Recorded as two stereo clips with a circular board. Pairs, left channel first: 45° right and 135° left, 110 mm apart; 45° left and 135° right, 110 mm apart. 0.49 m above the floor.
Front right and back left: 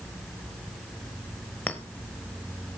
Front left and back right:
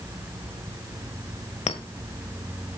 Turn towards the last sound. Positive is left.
turn(degrees=30)